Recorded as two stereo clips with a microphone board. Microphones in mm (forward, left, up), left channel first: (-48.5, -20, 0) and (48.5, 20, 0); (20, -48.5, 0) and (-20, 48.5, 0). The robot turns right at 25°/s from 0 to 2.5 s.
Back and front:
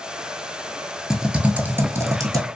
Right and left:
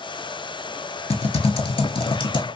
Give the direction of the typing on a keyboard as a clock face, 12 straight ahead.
2 o'clock.